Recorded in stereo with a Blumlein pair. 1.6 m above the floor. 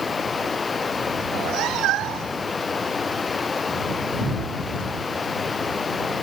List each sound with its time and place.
0.0 s running water: 15° left
1.2 s a cat meowing: 35° right